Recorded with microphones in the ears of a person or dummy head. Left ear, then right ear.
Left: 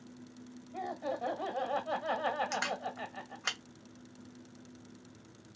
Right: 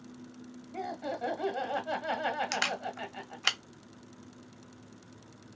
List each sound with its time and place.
0.7 s laughter: centre (ahead or behind), 1.1 m
2.5 s a camera shutter: 20° right (ahead or behind), 0.5 m